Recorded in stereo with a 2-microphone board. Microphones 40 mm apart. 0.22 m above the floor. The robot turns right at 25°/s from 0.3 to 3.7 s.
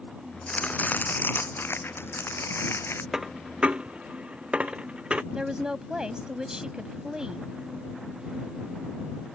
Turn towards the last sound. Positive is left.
turn(degrees=-20)  # may be behind; listen again after turning